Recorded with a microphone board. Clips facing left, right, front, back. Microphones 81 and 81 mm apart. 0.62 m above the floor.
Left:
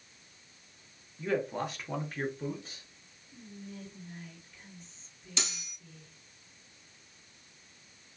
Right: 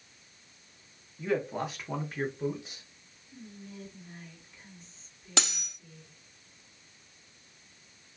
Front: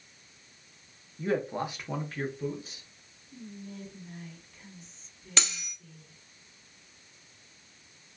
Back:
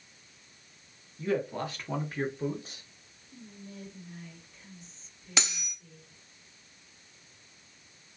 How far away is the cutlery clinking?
About 0.7 m.